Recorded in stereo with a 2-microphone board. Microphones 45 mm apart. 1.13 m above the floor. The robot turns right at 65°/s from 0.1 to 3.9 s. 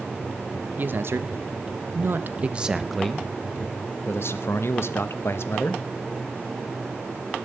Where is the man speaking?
140° right, 1.0 m; by 5.8 s 65° left, 1.0 m.